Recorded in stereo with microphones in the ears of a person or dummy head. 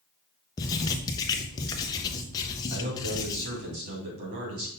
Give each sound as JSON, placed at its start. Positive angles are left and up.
{"t": 0.6, "sound": "writing", "side_deg": 20, "distance_m": 0.7}
{"t": 2.7, "sound": "a man speaking", "side_deg": -50, "distance_m": 3.0}